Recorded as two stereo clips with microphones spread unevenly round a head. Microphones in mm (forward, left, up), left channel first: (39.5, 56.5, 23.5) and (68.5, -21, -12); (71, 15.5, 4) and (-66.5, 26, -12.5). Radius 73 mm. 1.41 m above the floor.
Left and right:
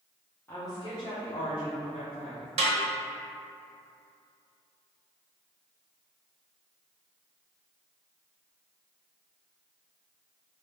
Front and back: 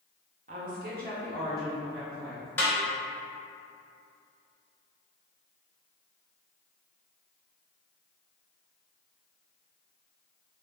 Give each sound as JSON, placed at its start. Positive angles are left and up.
{"t": 0.5, "sound": "a woman speaking", "azimuth_deg": -165, "distance_m": 0.5}
{"t": 2.6, "sound": "a snare drum", "azimuth_deg": -75, "distance_m": 0.7}